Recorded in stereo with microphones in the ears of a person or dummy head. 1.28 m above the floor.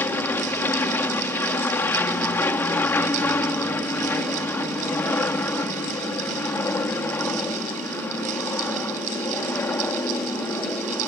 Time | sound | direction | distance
0.0 | an aircraft | 10° left (ahead or behind) | ?